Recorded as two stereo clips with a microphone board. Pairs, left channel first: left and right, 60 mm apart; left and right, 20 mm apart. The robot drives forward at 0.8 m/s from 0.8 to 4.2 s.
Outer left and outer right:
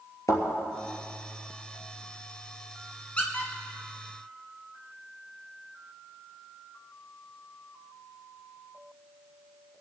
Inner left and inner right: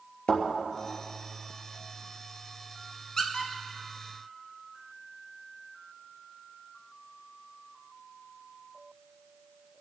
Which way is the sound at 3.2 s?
20° left (ahead or behind).